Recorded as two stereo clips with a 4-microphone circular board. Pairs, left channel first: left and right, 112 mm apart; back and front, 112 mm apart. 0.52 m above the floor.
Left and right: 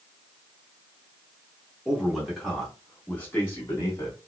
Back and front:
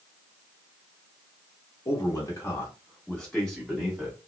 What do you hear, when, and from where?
1.9 s a man speaking: 170° right, 1.3 m; by 4.2 s 80° left, 1.2 m